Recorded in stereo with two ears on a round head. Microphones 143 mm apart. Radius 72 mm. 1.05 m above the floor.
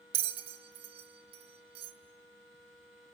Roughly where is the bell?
Right.